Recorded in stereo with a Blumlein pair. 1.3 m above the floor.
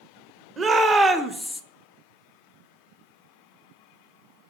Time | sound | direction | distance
0.6 | a shout | 20° right | 1.0 m